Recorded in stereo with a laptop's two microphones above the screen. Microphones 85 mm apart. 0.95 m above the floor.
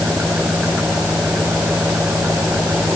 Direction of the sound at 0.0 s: 15° right (ahead or behind).